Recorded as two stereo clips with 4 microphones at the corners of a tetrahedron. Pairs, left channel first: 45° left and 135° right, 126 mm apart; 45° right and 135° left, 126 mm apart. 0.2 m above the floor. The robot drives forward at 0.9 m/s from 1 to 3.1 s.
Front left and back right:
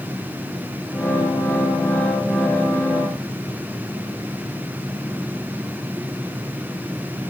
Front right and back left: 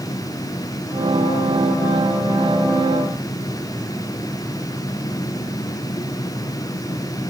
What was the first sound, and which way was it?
Only background noise.